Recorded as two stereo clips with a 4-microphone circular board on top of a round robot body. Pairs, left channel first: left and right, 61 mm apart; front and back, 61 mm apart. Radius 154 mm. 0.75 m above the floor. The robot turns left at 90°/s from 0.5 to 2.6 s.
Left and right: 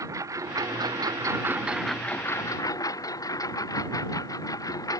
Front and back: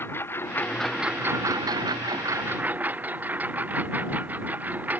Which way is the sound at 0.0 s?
55° right.